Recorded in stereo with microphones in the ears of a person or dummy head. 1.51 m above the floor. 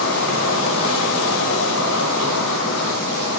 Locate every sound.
0.0 s an insect: 65° left (ahead or behind), 1.9 m